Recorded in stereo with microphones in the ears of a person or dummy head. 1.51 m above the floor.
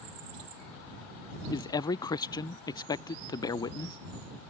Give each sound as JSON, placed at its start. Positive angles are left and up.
{"t": 1.5, "sound": "a man speaking", "side_deg": 15}